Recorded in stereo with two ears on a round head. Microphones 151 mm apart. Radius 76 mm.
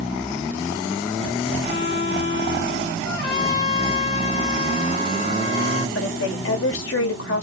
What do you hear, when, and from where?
1.6 s a violin: 50° left (ahead or behind), 3.5 m
3.0 s a trumpet: 60° left (ahead or behind), 2.5 m
6.0 s a woman speaking: 70° left (ahead or behind), 2.5 m